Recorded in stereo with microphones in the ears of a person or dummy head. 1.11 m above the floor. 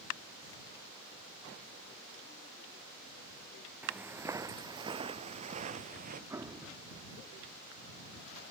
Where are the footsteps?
5° right (ahead or behind); by 6.2 s 45° right (ahead or behind).